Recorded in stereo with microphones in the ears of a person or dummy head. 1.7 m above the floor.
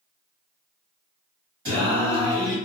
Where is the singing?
25° right (ahead or behind), 1.4 m.